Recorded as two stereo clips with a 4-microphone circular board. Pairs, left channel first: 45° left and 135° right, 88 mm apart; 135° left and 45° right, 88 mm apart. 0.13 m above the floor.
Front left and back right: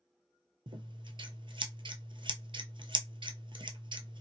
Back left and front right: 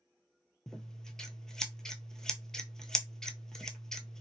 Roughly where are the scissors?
Behind right.